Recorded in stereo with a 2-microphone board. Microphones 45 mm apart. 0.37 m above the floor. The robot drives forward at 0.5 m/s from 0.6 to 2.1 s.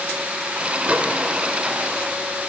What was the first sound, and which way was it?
A microwave, 30° right (ahead or behind).